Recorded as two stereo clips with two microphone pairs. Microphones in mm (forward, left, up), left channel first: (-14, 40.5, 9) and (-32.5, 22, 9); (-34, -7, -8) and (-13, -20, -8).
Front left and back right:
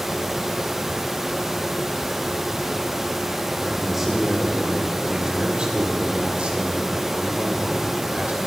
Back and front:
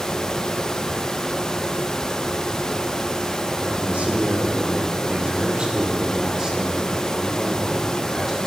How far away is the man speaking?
About 2.5 m.